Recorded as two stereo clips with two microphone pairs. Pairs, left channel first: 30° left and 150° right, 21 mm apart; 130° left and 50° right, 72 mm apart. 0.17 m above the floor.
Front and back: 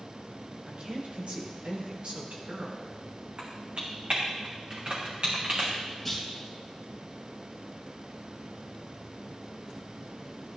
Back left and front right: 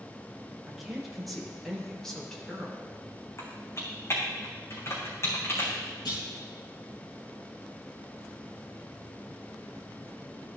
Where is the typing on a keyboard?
175° left, 3.5 m.